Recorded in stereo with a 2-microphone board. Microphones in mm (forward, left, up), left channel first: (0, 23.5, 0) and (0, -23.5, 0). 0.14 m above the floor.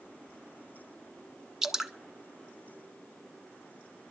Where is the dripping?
10° right (ahead or behind), 0.7 m.